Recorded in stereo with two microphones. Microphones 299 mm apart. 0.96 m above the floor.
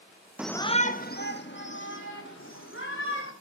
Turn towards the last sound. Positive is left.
turn(degrees=45)  # may be behind; listen again after turning